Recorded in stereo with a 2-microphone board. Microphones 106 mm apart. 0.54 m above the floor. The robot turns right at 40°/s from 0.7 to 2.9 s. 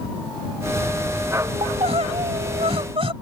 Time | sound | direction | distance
1.6 | crying | 115° right | ?